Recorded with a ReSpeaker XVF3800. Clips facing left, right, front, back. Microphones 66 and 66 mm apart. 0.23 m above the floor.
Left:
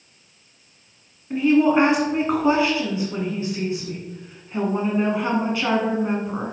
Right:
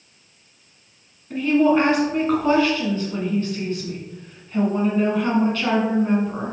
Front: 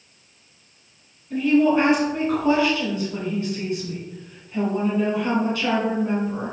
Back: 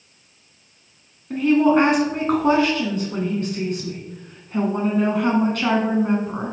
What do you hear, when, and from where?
1.3 s a woman speaking: 160° left, 1.9 m